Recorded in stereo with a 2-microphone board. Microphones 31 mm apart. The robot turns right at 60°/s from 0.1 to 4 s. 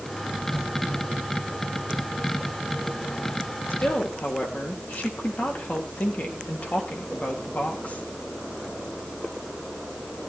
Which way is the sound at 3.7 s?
65° left (ahead or behind).